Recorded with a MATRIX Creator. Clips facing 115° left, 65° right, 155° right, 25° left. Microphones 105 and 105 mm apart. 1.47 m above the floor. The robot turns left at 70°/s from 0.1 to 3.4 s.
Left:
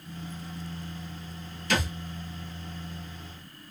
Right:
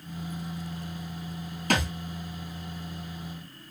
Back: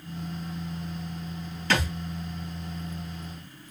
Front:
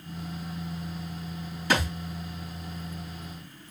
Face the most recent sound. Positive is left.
turn(degrees=-170)